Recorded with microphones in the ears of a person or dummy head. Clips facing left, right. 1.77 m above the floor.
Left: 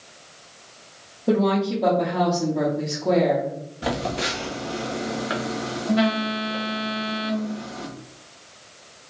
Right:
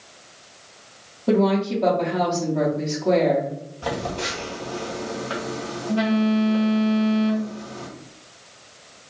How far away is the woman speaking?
About 1.0 m.